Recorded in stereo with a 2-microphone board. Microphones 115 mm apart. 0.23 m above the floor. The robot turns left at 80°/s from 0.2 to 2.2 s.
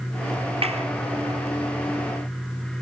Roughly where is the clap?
Right.